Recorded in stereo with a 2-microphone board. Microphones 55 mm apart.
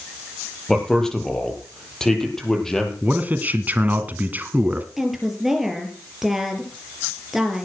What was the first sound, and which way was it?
A man speaking, 10° left (ahead or behind).